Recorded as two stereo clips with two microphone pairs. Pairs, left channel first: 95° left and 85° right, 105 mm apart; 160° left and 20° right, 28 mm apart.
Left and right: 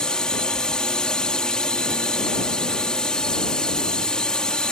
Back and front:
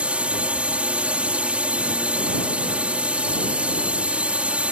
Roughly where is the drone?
Ahead.